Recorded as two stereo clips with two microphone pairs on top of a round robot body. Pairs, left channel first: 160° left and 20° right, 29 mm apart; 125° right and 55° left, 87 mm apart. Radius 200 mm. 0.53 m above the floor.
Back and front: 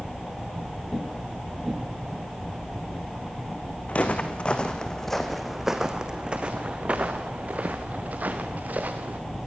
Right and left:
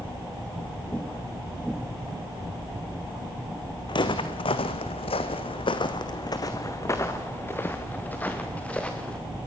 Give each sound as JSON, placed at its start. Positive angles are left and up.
{"t": 3.9, "sound": "footsteps", "azimuth_deg": -155, "distance_m": 2.0}